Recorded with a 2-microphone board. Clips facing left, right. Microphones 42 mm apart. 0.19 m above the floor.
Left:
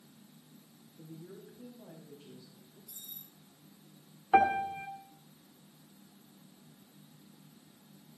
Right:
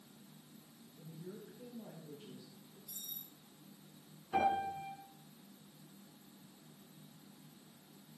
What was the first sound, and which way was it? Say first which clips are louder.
A woman speaking: left 1 dB; 35° right (ahead or behind).